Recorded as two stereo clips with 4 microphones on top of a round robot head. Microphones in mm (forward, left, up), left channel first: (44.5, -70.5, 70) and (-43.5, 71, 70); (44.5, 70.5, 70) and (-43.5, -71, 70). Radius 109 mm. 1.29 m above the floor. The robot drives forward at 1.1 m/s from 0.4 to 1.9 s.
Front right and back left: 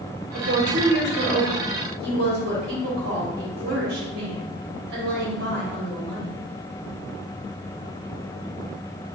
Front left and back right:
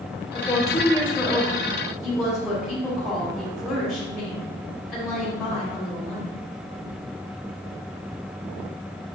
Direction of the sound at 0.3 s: 125° left.